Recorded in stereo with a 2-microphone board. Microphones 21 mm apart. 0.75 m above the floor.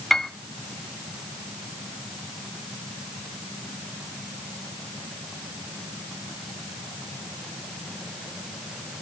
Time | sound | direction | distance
0.1 | a piano | 15° left (ahead or behind) | 1.4 m